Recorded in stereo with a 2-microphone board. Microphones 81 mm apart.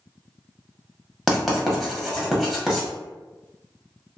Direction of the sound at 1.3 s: Centre (ahead or behind).